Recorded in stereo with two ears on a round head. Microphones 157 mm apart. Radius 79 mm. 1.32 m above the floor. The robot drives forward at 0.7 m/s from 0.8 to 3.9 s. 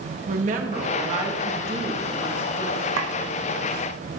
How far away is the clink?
About 0.9 m.